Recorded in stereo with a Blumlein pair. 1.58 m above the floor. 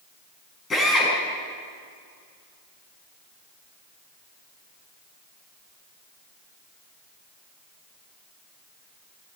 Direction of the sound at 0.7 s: 15° left.